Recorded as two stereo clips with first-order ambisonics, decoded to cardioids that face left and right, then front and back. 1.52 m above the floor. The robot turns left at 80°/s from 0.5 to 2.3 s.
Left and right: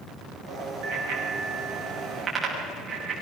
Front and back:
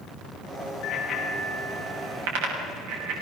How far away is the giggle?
I don't hear a giggle.